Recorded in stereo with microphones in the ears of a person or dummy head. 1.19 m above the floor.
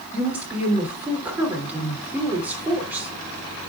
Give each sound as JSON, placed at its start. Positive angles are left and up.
{"t": 0.1, "sound": "a woman speaking", "side_deg": -5, "distance_m": 3.0}